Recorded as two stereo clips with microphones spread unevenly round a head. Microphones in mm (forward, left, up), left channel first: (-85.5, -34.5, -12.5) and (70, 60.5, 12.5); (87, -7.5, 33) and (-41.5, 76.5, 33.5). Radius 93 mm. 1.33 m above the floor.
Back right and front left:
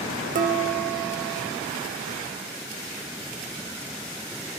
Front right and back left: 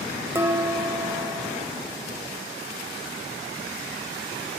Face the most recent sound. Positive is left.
turn(degrees=75)